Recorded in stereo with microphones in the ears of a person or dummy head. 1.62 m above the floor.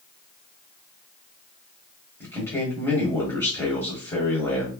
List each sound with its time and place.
2.2 s a man speaking: 15° left (ahead or behind), 1.1 m